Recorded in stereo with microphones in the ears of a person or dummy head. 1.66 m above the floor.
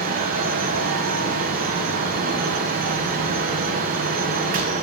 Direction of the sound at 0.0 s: 45° right (ahead or behind).